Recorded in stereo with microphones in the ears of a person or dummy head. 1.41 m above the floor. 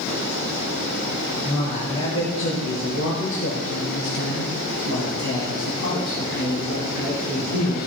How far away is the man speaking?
About 1.9 m.